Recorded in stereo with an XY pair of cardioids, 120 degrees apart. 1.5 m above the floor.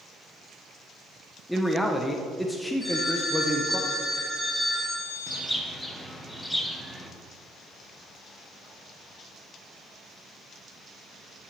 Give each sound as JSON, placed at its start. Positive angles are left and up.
{"t": 1.5, "sound": "a man speaking", "azimuth_deg": 5, "distance_m": 0.9}
{"t": 2.8, "sound": "a phone ringing", "azimuth_deg": 15, "distance_m": 3.5}
{"t": 5.3, "sound": "a bird", "azimuth_deg": 5, "distance_m": 1.3}